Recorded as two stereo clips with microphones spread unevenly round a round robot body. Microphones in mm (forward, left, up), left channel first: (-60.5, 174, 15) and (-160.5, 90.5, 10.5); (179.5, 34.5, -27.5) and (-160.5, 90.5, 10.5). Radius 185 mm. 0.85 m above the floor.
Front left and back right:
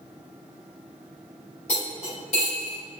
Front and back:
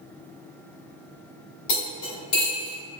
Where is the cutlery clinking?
35° right, 1.8 m.